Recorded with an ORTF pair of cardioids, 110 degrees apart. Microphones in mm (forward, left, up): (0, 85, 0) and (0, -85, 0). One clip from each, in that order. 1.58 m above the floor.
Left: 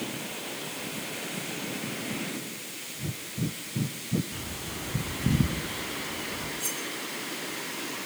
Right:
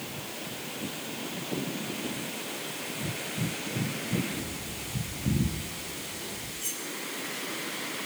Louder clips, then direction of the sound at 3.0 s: Right 1 dB; 10° left.